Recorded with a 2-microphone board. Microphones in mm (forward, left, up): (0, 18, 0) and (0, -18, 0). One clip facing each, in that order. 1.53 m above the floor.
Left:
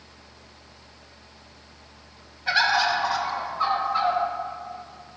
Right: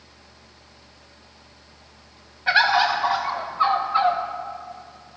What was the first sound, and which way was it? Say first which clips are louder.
A bird: right 3 dB; 20° right (ahead or behind).